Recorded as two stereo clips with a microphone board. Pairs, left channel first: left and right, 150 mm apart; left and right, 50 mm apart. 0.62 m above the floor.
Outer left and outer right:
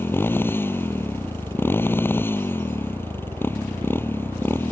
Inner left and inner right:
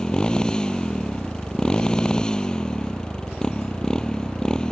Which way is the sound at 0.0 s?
15° left (ahead or behind).